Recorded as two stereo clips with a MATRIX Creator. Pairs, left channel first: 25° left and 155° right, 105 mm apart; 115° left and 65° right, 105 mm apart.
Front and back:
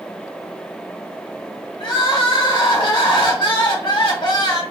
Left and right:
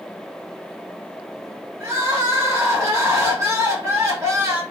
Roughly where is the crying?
Ahead.